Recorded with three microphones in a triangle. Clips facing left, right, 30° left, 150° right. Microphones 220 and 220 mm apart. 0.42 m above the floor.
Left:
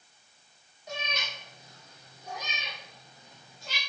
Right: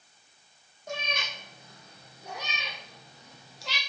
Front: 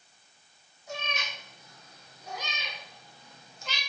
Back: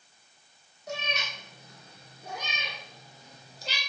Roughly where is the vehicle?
I don't hear a vehicle.